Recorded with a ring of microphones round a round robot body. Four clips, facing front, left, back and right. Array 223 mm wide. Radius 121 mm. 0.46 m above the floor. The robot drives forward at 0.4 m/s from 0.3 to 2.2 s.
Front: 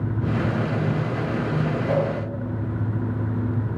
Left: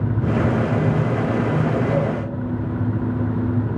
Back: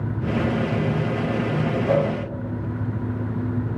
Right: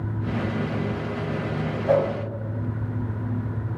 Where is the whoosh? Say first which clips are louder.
Right 1 dB, back 3 dB; 120° right, 1.9 m; by 2.1 s 125° right, 1.9 m.